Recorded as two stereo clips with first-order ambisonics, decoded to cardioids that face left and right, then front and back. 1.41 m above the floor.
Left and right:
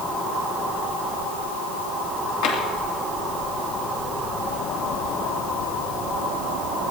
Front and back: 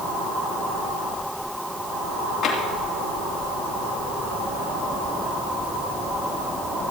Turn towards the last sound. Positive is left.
turn(degrees=70)